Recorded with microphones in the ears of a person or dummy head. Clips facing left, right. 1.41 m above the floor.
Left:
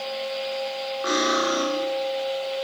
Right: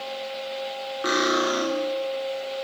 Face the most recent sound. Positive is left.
turn(degrees=-30)  # may be behind; listen again after turning